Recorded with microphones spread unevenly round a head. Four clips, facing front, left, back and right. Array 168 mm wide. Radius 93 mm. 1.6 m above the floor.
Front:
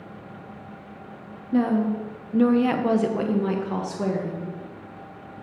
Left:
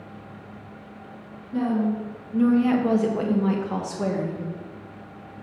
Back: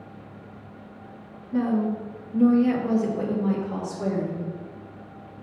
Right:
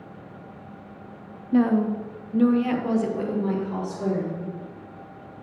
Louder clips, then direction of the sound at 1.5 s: Right 3 dB, front 2 dB; 50° right.